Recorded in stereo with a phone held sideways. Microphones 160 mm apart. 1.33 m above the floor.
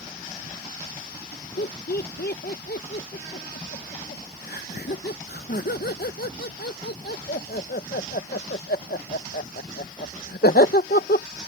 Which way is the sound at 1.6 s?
80° left.